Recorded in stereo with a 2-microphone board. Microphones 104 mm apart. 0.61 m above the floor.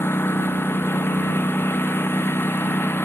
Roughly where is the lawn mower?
Left.